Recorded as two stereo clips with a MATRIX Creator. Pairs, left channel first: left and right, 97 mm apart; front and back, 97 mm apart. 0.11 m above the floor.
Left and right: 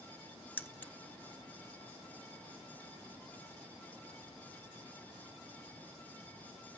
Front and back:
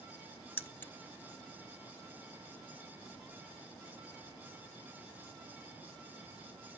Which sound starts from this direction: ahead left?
Keys jangling, at 0.6 s.